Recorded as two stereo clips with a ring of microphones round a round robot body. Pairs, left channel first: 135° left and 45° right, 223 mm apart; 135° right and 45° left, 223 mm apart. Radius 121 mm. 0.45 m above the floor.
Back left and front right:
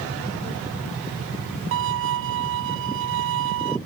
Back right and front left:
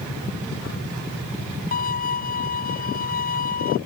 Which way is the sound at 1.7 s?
80° right.